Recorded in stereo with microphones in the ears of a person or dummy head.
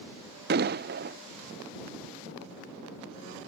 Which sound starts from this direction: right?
An explosion, at 0.5 s.